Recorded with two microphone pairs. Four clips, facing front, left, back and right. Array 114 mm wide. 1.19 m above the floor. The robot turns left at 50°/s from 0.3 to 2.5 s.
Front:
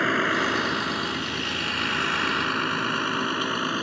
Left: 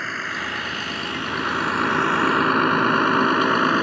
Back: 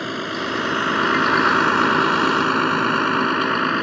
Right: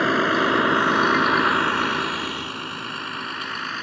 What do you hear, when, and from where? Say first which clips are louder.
0.0 s a vehicle: right 10 dB, front 2 dB; 80° right; by 3.8 s 115° left